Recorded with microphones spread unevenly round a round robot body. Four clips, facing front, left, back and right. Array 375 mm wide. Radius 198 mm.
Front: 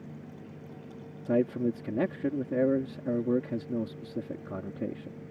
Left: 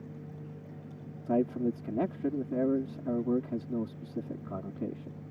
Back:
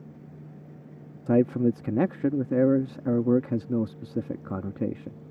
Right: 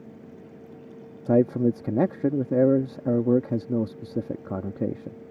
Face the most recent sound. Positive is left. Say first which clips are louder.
# right 8 dB, back 5 dB
turn(degrees=-135)